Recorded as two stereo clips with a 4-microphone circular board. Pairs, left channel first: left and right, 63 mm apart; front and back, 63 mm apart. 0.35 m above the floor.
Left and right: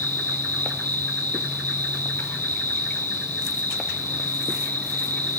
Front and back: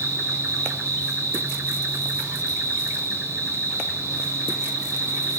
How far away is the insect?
About 5 m.